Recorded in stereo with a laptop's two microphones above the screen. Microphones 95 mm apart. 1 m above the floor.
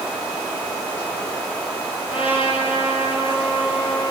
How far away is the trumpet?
About 7 m.